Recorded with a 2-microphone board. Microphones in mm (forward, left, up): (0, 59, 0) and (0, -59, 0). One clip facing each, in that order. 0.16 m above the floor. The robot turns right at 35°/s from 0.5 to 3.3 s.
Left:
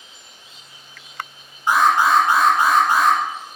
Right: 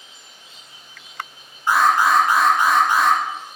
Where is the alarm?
20° left, 1.5 m; by 3.2 s 75° left, 1.5 m.